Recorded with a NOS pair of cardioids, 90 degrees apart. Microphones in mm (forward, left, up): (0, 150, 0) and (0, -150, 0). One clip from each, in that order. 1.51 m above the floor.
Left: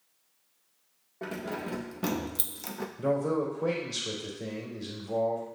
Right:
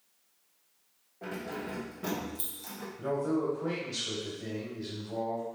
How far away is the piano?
I don't hear a piano.